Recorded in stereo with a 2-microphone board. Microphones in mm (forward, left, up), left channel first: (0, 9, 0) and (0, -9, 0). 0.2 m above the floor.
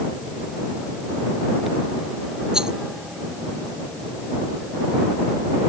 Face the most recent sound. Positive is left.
turn(degrees=-50)  # may be behind; listen again after turning